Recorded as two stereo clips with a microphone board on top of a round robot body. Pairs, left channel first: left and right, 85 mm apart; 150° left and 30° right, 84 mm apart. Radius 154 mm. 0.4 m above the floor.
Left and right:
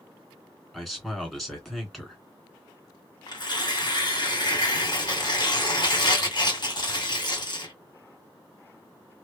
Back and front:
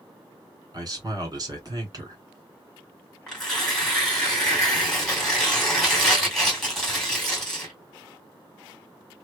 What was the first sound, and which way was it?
A man speaking, 5° left.